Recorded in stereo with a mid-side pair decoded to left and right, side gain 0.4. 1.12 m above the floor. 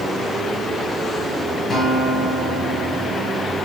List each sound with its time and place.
1.7 s a guitar: 55° left, 5 m